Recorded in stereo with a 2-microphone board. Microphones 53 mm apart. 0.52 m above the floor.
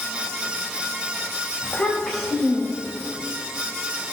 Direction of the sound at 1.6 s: 35° left (ahead or behind).